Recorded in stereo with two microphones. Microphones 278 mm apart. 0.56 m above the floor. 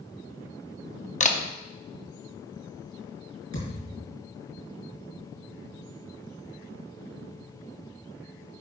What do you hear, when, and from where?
1.2 s a camera shutter: 25° left (ahead or behind), 0.8 m
3.5 s a thud: 75° left (ahead or behind), 4 m